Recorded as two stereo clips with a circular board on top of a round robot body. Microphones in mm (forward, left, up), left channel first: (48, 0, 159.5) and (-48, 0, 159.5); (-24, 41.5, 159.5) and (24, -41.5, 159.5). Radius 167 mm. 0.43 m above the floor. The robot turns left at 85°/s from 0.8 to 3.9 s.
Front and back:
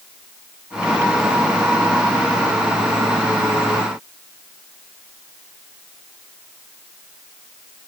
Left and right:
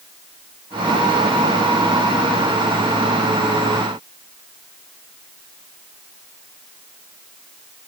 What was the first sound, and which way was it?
Only background noise.